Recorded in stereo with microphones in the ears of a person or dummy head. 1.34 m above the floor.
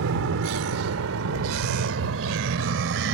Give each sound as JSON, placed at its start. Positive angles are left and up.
{"t": 0.0, "sound": "a vehicle", "side_deg": -80}